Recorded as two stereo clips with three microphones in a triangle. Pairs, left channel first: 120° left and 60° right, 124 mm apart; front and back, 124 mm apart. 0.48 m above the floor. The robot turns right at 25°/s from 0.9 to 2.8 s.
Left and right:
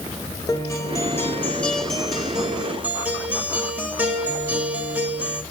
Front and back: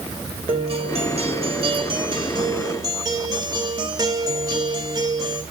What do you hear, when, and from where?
0.5 s a guitar: straight behind, 2.5 m; by 5.4 s 135° right, 2.5 m